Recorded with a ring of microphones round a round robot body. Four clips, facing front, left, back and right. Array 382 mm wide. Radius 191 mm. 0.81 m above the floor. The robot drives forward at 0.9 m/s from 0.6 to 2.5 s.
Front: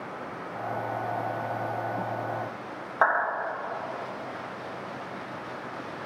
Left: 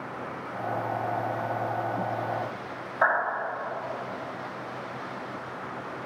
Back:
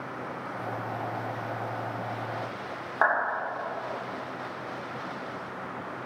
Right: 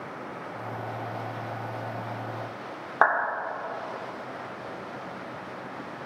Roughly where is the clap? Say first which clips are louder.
Right 2 dB, front 1 dB; right.